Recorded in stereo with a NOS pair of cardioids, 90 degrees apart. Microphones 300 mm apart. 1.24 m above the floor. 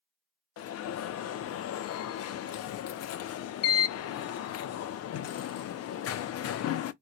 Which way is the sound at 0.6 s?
55° left.